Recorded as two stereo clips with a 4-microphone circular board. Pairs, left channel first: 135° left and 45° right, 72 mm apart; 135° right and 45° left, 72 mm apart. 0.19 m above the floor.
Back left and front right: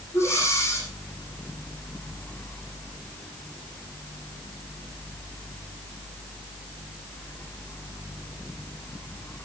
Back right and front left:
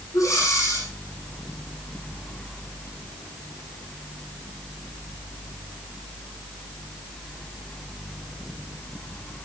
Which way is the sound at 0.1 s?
175° right.